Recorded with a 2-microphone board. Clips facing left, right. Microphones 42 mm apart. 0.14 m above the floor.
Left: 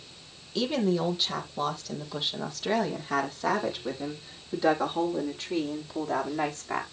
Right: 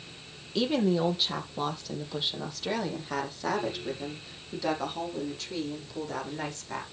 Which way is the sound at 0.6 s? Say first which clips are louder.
Right 1 dB; 10° right (ahead or behind).